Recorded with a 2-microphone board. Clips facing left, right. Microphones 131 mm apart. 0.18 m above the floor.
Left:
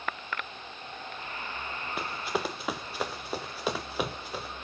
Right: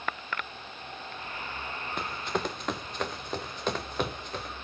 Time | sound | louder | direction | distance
2.0 | running footsteps | even | 5° left (ahead or behind) | 0.8 m